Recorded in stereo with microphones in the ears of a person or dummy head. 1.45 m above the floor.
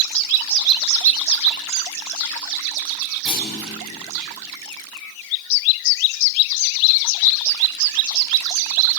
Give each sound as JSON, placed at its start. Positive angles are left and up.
{"t": 3.2, "sound": "a clunk", "side_deg": 0, "distance_m": 5.5}